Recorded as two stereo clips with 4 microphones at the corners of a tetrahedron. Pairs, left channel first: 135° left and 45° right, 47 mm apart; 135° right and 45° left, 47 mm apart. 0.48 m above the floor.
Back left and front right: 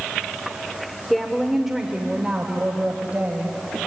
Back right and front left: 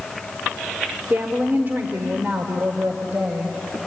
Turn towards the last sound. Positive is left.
turn(degrees=15)